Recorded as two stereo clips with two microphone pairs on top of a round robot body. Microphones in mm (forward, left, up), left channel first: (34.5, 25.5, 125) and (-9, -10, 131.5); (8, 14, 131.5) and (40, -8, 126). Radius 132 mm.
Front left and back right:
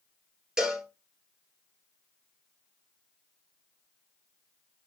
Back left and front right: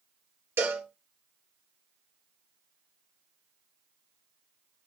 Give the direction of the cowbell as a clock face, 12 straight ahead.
2 o'clock.